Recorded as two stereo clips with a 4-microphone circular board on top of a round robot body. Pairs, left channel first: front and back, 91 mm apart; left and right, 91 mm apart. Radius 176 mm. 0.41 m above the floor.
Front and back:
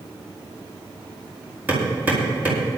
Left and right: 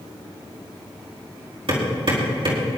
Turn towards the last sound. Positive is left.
turn(degrees=-110)